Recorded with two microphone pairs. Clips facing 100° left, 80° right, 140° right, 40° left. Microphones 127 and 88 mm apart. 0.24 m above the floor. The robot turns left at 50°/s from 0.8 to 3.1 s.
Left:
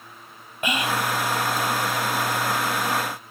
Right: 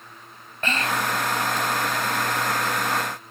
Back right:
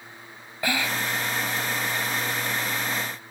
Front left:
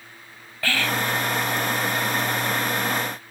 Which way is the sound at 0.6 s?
165° left.